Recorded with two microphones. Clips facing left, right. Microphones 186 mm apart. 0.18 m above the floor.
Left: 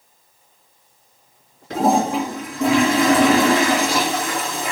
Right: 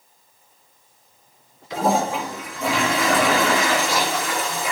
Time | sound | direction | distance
1.7 | a toilet flushing | 60° left (ahead or behind) | 3 m